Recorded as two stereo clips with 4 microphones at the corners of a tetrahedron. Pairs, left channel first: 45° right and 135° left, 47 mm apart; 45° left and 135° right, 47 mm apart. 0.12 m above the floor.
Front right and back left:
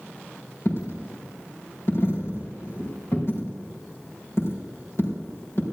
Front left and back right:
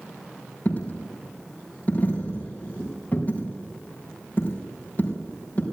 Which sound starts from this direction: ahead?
A dropped coin, at 0.7 s.